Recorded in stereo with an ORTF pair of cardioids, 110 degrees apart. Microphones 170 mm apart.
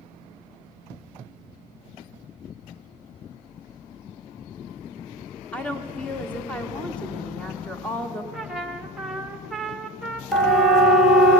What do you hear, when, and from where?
5.5 s a woman speaking: 5° left, 1.5 m
8.3 s a trumpet: 5° right, 1.3 m
10.3 s a siren: straight ahead, 2 m